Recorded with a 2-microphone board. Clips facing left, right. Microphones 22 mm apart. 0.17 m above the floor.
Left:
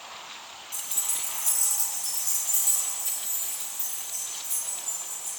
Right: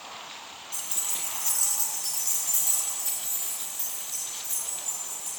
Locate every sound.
0.7 s keys jangling: 10° right (ahead or behind), 0.9 m; by 5.3 s 60° right (ahead or behind), 3 m